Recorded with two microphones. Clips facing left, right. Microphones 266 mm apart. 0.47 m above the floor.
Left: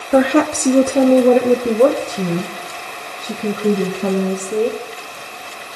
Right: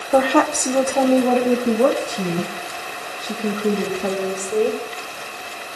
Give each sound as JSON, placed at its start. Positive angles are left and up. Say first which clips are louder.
{"t": 0.1, "sound": "a woman speaking", "louder": "left 4 dB", "side_deg": 15, "distance_m": 0.9}